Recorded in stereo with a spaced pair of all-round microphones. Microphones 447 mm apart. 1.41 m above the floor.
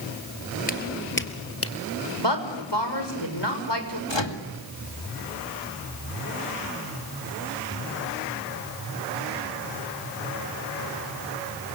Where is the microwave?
65° left (ahead or behind), 2 m.